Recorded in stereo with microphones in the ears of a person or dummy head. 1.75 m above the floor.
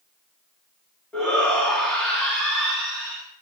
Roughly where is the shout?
Centre.